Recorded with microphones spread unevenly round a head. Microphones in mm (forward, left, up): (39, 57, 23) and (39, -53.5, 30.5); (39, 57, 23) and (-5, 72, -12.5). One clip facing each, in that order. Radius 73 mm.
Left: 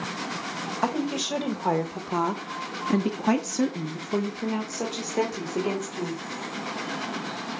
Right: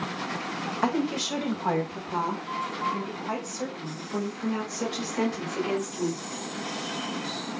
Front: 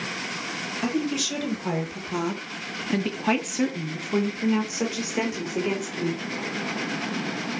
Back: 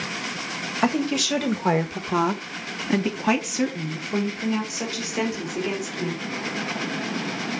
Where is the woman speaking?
175° left, 3 m; by 6.2 s 35° left, 4.5 m.